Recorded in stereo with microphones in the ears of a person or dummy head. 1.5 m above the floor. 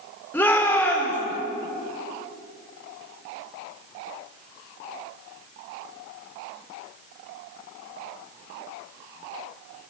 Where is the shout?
10° left (ahead or behind), 6 m.